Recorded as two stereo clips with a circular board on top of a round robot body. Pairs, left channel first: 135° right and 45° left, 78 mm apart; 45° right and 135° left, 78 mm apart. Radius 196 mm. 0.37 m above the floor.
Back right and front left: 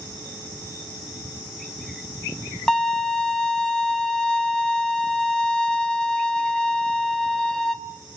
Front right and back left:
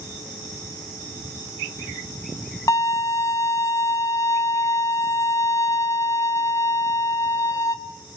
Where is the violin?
55° right, 1.4 m.